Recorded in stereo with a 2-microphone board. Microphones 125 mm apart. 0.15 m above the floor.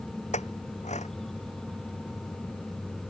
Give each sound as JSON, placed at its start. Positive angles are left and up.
{"t": 0.3, "sound": "a clink", "side_deg": 80}